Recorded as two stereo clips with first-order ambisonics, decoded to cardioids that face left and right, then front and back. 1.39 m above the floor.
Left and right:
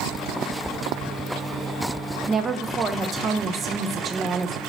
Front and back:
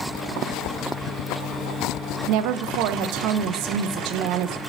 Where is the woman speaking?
160° right, 0.5 m.